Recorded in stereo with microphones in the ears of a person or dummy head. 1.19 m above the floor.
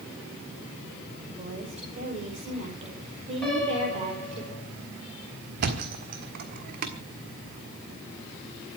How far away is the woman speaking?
About 5.5 m.